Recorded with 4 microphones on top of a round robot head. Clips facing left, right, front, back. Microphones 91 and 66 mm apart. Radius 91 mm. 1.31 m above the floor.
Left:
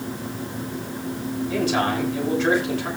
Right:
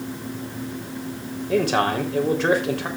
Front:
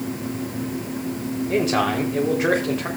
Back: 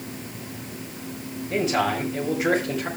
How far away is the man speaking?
About 3.5 m.